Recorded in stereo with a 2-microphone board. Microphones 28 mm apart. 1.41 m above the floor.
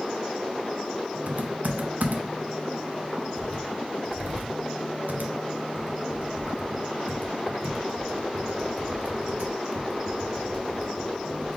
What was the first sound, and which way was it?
Typing on a keyboard, 70° right (ahead or behind).